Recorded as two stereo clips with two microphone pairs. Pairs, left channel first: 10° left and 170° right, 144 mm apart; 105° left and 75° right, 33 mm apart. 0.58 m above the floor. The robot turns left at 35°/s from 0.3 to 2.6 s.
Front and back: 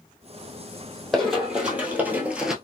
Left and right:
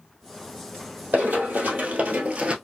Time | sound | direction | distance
1.1 | running footsteps | 75° right | 1.3 m